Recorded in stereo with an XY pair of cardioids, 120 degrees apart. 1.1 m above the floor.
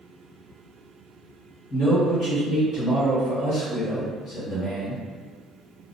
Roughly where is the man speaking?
Ahead left.